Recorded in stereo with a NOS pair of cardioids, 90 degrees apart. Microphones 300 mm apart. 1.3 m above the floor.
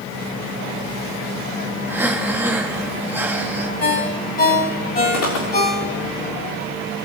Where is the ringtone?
30° left, 3 m.